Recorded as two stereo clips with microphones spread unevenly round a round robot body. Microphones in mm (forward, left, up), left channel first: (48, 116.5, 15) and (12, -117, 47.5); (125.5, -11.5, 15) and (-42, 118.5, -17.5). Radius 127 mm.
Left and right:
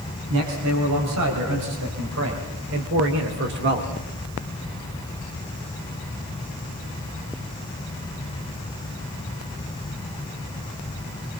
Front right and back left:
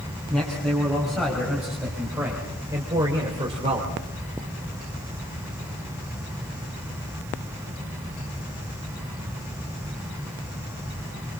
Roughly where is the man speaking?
Behind right.